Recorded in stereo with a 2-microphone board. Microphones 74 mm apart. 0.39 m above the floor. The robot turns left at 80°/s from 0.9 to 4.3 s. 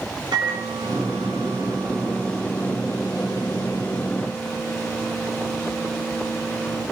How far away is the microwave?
About 4.5 m.